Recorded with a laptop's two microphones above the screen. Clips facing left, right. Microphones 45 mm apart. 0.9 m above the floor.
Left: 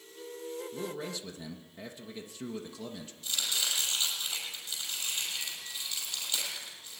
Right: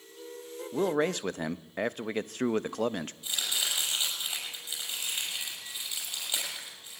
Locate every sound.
0.7 s a man speaking: 60° right (ahead or behind), 0.7 m
3.2 s chopping: 20° right (ahead or behind), 6.5 m